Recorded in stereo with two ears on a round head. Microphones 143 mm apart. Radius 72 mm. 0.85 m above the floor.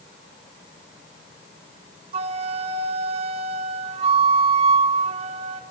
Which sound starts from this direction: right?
A flute, at 2.1 s.